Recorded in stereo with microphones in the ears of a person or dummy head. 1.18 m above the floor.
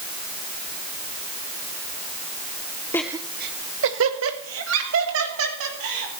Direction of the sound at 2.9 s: 5° left (ahead or behind).